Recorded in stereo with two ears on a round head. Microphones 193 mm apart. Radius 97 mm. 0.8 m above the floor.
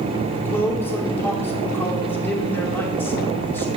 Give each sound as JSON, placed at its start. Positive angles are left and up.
{"t": 0.3, "sound": "a man speaking", "side_deg": 10, "distance_m": 2.0}